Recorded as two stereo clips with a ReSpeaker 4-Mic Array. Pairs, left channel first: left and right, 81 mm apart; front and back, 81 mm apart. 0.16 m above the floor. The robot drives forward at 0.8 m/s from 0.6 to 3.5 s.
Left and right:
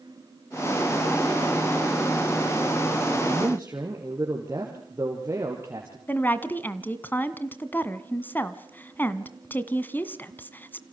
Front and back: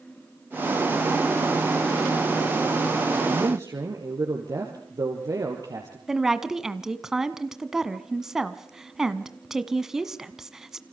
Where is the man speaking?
145° right, 4 m.